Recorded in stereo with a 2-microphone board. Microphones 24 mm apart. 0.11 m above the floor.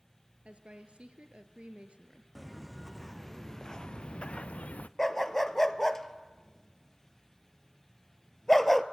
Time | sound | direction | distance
0.5 | a woman speaking | 50° right (ahead or behind) | 1.9 m
2.4 | footsteps | 10° right (ahead or behind) | 1.5 m
5.0 | a dog barking | 10° left (ahead or behind) | 0.9 m